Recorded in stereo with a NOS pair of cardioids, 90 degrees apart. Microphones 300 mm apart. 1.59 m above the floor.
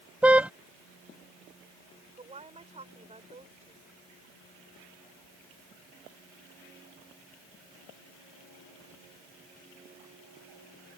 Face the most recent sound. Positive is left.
turn(degrees=-20)